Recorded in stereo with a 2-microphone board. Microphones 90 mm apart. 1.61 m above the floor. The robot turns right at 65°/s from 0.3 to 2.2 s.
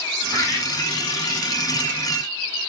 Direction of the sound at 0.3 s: 10° right (ahead or behind).